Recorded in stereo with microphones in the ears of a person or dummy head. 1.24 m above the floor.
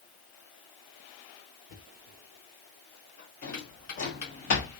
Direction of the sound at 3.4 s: 45° left (ahead or behind).